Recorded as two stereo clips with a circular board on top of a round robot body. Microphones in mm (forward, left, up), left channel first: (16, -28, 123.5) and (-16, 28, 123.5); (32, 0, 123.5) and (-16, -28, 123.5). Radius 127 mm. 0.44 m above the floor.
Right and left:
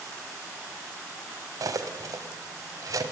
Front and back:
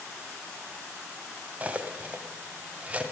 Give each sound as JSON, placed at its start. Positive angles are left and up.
{"t": 1.6, "sound": "cutlery clinking", "azimuth_deg": 145, "distance_m": 1.8}